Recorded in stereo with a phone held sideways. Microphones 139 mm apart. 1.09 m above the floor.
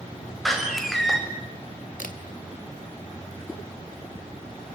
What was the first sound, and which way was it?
A door slam, centre (ahead or behind).